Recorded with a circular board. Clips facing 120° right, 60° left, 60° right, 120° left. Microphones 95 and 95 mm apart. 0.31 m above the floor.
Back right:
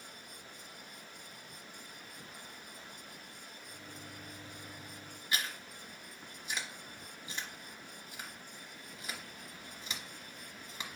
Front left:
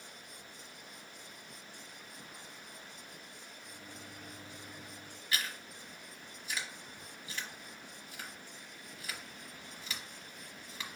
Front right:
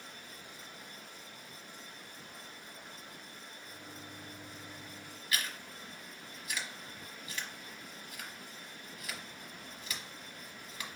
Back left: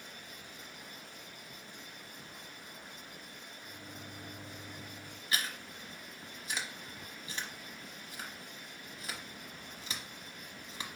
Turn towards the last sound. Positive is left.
turn(degrees=175)